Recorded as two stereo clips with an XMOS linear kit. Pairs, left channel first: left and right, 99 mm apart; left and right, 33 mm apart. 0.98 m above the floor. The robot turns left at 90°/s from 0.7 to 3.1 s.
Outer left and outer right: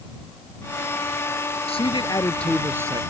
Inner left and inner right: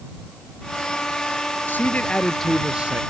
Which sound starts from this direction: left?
A man speaking, at 1.7 s.